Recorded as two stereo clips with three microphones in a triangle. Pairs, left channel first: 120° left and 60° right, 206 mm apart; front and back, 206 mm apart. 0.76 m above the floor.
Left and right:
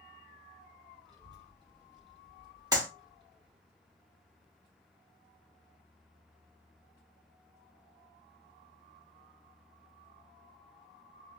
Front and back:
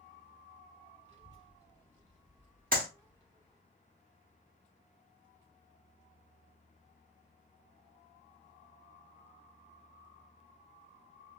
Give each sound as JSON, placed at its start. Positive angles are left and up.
{"t": 1.1, "sound": "a child speaking", "azimuth_deg": -125, "distance_m": 3.0}
{"t": 2.7, "sound": "a clap", "azimuth_deg": -130, "distance_m": 1.3}